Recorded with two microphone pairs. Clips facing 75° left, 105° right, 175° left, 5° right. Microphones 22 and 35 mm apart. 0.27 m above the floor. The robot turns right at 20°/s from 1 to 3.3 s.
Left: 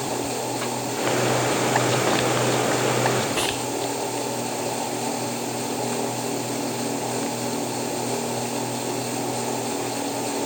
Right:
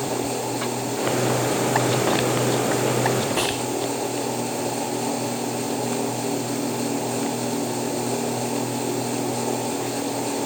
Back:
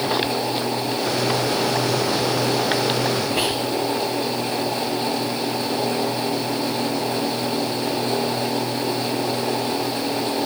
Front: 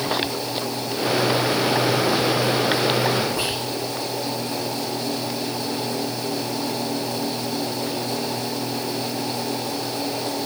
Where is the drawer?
No drawer in this recording.